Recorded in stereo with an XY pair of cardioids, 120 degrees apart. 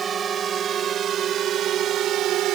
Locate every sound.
0.0 s a drone: 40° right; by 2.5 s 75° right